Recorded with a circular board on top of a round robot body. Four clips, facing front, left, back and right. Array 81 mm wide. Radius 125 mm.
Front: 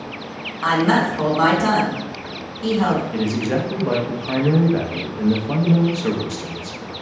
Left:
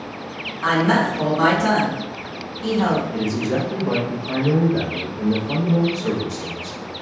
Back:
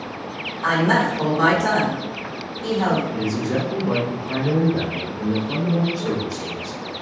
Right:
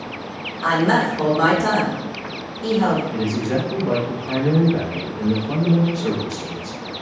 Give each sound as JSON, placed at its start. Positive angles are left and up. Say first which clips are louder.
{"t": 0.6, "sound": "a woman speaking", "louder": "even, front 1 dB", "azimuth_deg": 5, "distance_m": 1.7}
{"t": 3.1, "sound": "a man speaking", "louder": "even, front 2 dB", "azimuth_deg": -10, "distance_m": 0.8}